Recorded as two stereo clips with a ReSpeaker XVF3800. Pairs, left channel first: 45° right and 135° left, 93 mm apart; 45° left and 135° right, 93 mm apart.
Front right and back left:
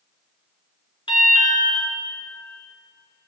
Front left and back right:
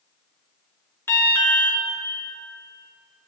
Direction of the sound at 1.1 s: 20° right.